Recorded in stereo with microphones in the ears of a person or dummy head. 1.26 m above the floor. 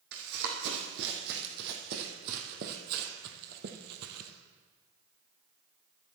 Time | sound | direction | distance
0.1 | running footsteps | 55° right (ahead or behind) | 4 m